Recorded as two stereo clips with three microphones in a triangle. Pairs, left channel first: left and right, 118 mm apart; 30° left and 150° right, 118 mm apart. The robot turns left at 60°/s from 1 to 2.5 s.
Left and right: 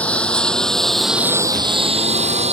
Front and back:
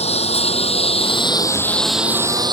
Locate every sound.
0.0 s a lawn mower: 10° left; by 2.5 s 105° right